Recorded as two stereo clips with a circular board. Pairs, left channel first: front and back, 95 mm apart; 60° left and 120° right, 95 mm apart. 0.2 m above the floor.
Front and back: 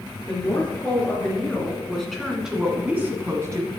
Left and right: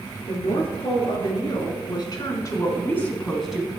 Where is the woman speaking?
70° left, 4 m; by 3.7 s 160° left, 1.6 m.